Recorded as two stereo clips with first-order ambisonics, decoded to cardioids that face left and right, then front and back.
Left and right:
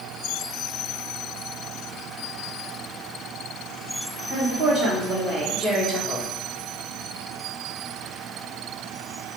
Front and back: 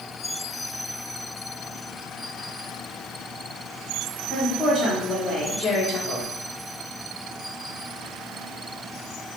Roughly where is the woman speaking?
Right.